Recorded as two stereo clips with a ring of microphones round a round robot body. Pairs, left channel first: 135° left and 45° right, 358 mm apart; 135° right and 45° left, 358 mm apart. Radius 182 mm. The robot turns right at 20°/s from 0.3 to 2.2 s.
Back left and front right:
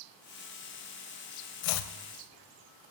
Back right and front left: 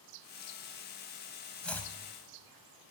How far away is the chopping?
About 0.5 m.